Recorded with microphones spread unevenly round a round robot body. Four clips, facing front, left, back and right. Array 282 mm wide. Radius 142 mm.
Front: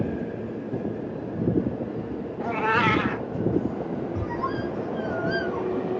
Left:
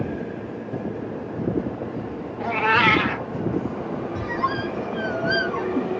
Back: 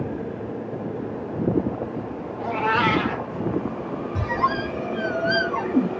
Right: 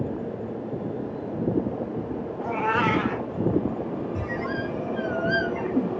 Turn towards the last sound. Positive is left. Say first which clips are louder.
# left 4 dB, back 5 dB
turn(degrees=-170)